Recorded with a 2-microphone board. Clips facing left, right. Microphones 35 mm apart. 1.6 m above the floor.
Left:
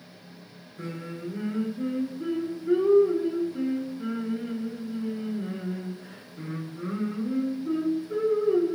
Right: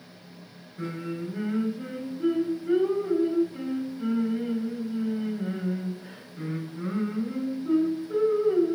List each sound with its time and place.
0.8 s singing: 40° right (ahead or behind), 1.3 m